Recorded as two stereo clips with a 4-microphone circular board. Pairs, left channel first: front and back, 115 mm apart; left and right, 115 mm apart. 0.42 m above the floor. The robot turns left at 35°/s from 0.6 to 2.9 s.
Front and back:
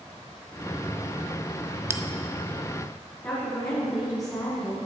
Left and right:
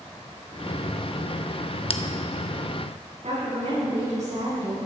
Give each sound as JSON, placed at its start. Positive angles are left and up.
{"t": 1.9, "sound": "a bell", "azimuth_deg": 115, "distance_m": 0.6}
{"t": 3.2, "sound": "a woman speaking", "azimuth_deg": -60, "distance_m": 3.5}